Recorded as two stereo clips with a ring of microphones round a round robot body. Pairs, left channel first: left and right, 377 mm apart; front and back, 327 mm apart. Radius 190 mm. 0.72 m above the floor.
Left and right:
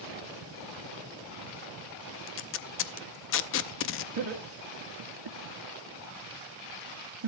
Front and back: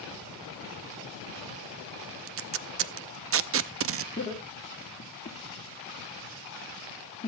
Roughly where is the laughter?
Right.